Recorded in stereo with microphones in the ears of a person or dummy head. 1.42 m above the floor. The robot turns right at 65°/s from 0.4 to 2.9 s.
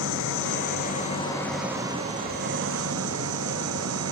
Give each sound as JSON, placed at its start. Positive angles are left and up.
{"t": 0.0, "sound": "an engine running", "azimuth_deg": 105}